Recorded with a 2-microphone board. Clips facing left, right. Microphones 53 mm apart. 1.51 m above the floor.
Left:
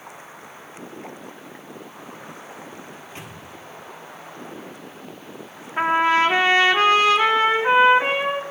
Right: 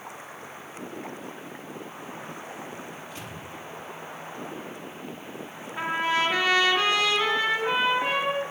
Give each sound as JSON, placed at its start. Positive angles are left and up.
{"t": 2.9, "sound": "a microwave", "side_deg": 35, "distance_m": 3.0}
{"t": 5.8, "sound": "a trumpet", "side_deg": 45, "distance_m": 1.5}